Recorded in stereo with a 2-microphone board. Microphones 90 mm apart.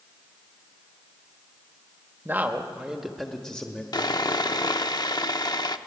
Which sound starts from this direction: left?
Sawing, at 3.9 s.